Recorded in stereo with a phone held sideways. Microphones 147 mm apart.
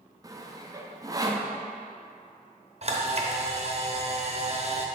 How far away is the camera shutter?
About 0.9 m.